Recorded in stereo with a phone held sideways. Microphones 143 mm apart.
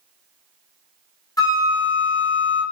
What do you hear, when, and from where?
1.4 s a flute: 25° left (ahead or behind), 0.7 m